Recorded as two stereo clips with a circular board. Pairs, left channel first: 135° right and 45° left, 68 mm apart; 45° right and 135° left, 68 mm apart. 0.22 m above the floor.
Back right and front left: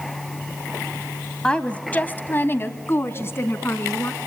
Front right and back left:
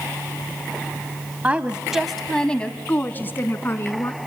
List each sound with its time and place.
1.4 s a woman speaking: 170° left, 1.3 m; by 4.2 s 90° right, 2.5 m